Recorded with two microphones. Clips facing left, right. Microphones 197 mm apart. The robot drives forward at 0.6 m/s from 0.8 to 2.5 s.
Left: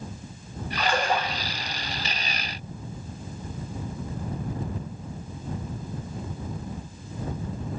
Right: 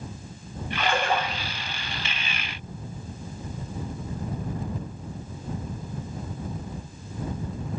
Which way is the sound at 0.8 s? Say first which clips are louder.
Even; centre (ahead or behind).